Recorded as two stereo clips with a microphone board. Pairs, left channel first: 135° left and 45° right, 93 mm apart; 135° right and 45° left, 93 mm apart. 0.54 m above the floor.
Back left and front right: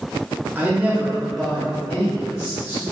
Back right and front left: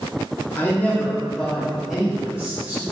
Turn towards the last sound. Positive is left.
turn(degrees=110)